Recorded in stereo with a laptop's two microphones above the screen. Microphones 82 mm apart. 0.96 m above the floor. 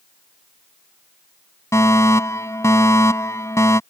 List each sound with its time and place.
1.7 s a fire alarm: 35° left (ahead or behind)